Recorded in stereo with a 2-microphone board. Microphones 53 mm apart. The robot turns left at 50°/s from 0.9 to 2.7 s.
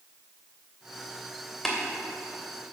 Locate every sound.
1.6 s tapping: 5° left (ahead or behind), 2.5 m; by 1.8 s 10° left (ahead or behind), 2.5 m